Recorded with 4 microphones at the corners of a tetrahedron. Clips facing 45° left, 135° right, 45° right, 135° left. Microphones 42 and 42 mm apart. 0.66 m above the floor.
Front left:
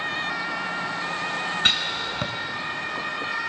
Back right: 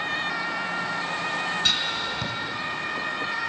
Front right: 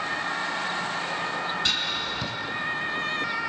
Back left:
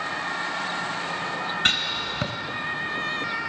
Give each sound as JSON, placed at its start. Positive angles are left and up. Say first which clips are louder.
{"t": 1.6, "sound": "writing", "louder": "front left 2 dB, back left 3 dB", "azimuth_deg": 95, "distance_m": 2.0}